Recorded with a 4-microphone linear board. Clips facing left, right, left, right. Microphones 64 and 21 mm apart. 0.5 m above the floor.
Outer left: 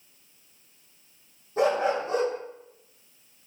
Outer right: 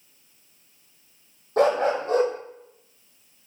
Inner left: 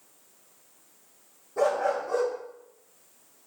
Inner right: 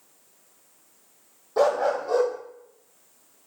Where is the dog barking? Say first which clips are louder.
Outer right 3 dB, inner right 3 dB; 85° right, 5.5 m.